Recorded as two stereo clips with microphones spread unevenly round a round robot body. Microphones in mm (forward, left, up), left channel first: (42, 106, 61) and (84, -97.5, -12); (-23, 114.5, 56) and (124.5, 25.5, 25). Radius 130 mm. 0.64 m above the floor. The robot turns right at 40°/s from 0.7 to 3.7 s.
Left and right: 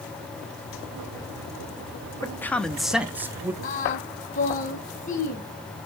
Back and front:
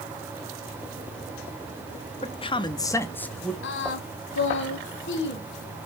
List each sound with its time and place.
2.2 s a man speaking: 165° right, 0.6 m; by 3.5 s 110° right, 0.6 m
3.6 s singing: 155° left, 1.1 m